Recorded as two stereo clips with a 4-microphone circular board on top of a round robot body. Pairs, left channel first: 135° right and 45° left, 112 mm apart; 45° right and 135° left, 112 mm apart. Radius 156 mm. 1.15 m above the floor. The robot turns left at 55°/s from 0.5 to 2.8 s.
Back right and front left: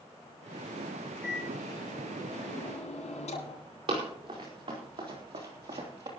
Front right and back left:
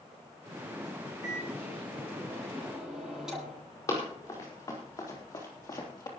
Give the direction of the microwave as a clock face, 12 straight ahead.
2 o'clock.